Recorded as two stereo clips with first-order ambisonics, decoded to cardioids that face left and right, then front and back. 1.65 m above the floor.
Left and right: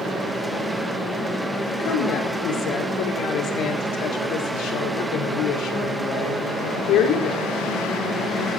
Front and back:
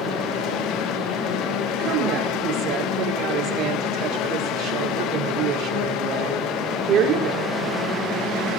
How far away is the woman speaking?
About 5 m.